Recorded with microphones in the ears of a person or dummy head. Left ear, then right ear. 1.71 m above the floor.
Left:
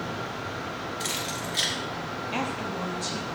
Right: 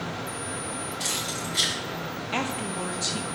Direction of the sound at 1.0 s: 10° left (ahead or behind).